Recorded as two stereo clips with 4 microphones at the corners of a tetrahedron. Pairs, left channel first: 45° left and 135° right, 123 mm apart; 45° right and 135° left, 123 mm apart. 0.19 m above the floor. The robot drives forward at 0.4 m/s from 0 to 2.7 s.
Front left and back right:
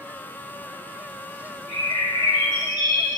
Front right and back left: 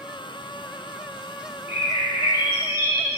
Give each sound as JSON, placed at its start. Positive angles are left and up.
{"t": 1.7, "sound": "a bird", "azimuth_deg": -155, "distance_m": 2.5}